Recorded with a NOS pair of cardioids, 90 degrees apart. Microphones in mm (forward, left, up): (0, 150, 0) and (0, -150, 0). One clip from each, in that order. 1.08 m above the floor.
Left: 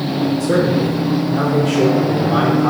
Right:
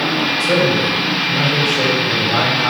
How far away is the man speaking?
About 1.6 m.